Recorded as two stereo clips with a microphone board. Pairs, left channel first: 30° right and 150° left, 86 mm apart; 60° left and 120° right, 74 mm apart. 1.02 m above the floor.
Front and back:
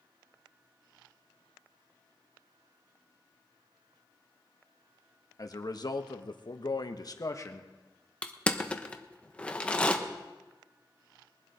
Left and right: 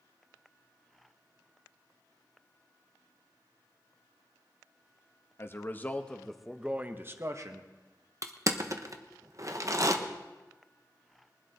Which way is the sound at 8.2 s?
105° right.